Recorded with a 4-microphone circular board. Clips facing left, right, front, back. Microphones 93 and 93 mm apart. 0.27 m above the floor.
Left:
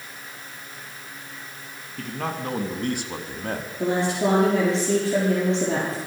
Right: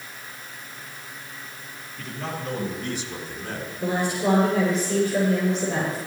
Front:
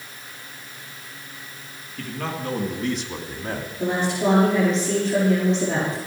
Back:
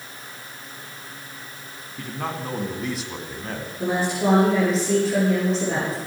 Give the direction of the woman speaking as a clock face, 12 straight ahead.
9 o'clock.